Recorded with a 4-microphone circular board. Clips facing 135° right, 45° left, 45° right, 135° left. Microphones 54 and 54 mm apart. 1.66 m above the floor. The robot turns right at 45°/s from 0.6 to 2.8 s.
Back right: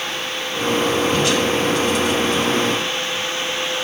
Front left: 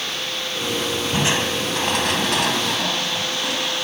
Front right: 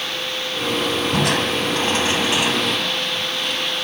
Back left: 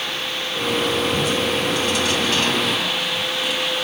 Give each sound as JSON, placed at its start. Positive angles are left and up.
{"t": 1.1, "sound": "crushing", "azimuth_deg": -25}